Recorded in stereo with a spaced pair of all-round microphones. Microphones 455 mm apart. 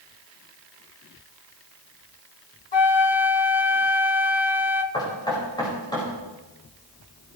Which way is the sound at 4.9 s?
10° left (ahead or behind).